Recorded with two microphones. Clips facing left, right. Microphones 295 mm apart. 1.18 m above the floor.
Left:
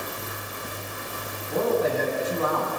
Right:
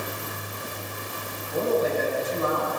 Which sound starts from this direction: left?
A man speaking, at 1.5 s.